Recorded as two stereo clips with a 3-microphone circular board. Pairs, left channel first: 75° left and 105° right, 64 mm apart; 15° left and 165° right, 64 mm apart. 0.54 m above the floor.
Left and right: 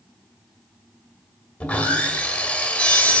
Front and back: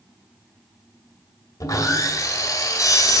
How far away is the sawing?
About 1.9 m.